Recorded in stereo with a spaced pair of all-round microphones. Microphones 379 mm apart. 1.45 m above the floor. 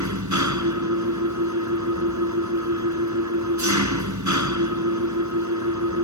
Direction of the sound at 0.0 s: 50° right (ahead or behind).